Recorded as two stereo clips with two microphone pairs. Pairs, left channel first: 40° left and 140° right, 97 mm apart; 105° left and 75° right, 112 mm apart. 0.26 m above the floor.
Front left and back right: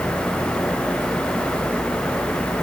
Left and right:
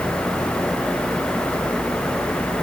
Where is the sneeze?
No sneeze in this recording.